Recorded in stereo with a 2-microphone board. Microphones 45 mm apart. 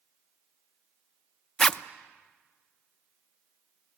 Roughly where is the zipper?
Centre.